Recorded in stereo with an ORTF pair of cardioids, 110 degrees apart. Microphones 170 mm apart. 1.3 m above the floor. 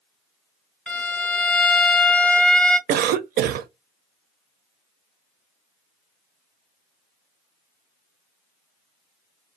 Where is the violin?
5° left, 0.7 m.